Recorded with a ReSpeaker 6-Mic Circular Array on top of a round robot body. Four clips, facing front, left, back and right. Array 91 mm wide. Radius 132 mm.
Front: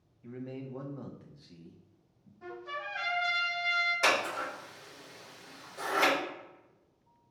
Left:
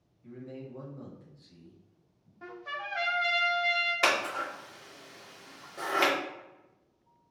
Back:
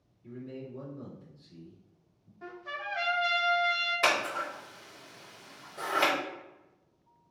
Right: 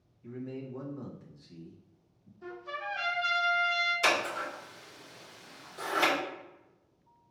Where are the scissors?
105° left, 2 m.